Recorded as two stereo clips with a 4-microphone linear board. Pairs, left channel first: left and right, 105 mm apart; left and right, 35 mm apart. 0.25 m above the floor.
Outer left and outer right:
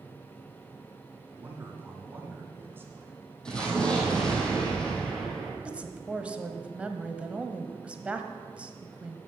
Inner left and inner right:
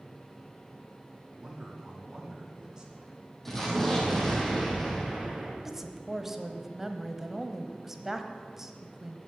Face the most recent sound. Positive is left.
turn(degrees=-10)  # may be behind; listen again after turning